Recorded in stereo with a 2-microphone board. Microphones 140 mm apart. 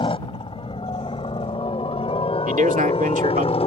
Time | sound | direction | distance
0.0 | a helicopter | 40° left (ahead or behind) | ?
2.5 | a man speaking | 70° right (ahead or behind) | ?